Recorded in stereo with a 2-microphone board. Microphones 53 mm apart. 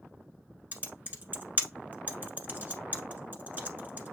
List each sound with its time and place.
0.7 s typing on a keyboard: 35° right (ahead or behind), 1.3 m